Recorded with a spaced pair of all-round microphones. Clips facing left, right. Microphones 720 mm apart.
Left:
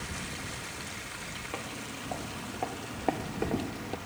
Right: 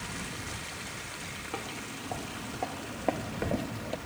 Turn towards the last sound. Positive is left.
turn(degrees=-15)  # may be behind; listen again after turning